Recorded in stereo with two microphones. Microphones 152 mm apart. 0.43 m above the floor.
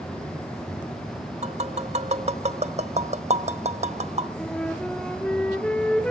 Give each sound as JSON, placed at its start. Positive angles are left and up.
{"t": 1.4, "sound": "tapping", "side_deg": -45, "distance_m": 0.8}
{"t": 4.4, "sound": "a flute", "side_deg": 5, "distance_m": 2.0}